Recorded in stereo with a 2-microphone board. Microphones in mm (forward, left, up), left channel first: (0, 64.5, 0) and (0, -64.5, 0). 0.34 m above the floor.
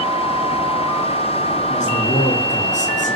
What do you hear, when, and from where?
1.7 s a man speaking: 70° left (ahead or behind), 5.5 m